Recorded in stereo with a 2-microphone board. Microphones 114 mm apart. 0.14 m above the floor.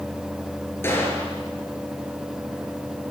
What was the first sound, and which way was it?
A gunshot, 20° left (ahead or behind).